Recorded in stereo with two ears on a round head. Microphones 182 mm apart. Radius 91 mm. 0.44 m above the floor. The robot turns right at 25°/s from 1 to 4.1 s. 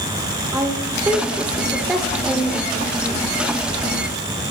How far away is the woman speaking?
About 1.2 m.